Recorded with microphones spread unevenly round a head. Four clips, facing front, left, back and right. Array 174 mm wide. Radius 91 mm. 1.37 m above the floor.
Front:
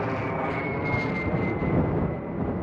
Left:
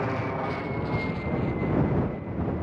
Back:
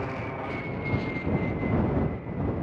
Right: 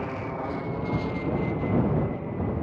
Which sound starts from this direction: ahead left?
An aircraft, at 0.0 s.